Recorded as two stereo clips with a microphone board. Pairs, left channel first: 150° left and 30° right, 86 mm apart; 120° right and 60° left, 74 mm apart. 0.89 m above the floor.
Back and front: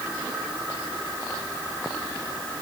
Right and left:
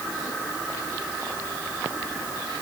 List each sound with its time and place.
Only background noise.